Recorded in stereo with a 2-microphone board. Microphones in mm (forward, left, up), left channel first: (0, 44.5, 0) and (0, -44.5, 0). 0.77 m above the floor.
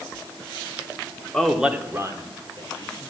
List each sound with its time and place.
1.3 s a man speaking: 10° left (ahead or behind), 1.6 m; by 3.1 s 60° right (ahead or behind), 3 m